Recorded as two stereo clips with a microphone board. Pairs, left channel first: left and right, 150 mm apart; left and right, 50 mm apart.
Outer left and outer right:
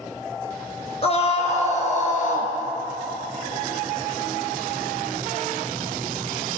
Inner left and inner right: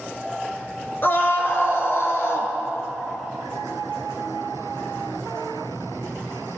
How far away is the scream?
About 2.0 m.